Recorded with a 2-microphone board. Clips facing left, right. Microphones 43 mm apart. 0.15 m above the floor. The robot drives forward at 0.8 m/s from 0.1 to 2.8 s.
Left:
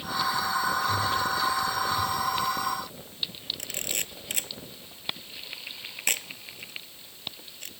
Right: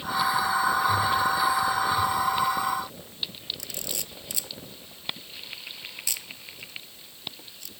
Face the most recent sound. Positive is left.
turn(degrees=45)  # may be behind; listen again after turning